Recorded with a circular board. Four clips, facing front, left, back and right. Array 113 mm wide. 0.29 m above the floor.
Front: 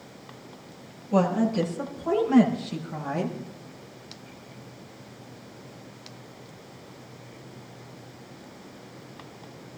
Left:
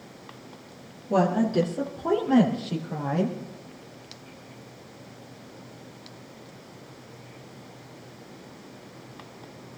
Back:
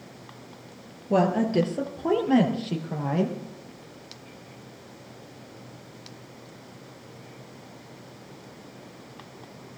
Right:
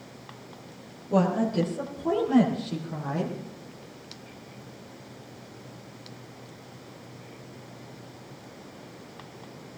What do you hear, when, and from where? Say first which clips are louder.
1.1 s a woman speaking: left 2 dB, back 1 dB; 160° left, 5.5 m; by 3.4 s 155° left, 7 m